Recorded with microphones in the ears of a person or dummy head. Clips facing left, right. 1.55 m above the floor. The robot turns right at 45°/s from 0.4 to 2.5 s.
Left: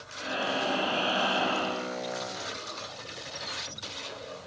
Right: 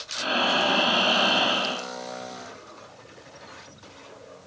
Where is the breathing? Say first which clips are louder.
Right 5 dB; 95° right, 3.5 m; by 1.9 s 30° right, 3.5 m.